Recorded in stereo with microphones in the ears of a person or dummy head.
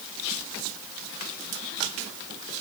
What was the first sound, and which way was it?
Only background noise.